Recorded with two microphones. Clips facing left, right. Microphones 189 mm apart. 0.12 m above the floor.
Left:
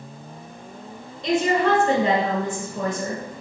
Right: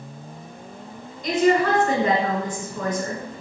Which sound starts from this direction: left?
A woman speaking, at 1.2 s.